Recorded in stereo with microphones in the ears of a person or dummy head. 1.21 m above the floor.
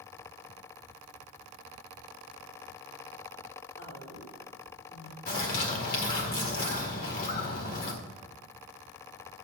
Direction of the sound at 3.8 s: 80° left.